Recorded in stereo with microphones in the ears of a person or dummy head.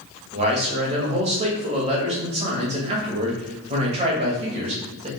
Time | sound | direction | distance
0.3 | a man speaking | 35° right (ahead or behind) | 0.8 m